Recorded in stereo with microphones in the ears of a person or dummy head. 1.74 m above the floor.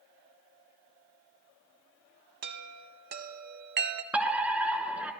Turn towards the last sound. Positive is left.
turn(degrees=0)  # may be behind; listen again after turning